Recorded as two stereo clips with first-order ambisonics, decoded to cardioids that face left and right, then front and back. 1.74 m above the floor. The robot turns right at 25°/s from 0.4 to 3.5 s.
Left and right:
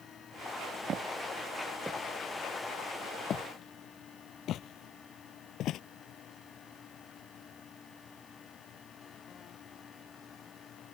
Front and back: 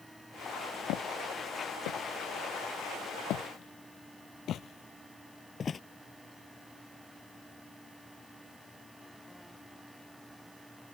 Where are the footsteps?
35° right; by 5.8 s 65° left.